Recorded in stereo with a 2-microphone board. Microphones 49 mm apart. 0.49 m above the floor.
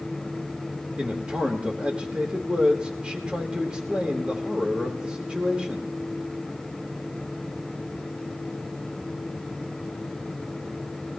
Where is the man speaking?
20° right (ahead or behind), 1.5 m.